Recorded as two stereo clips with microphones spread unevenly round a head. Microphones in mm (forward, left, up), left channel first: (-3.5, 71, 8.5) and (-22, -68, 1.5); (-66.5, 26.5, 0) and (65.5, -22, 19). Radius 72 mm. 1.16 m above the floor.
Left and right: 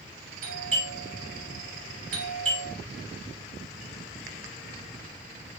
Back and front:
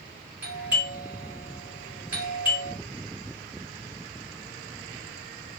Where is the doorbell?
100° right, 2.5 m.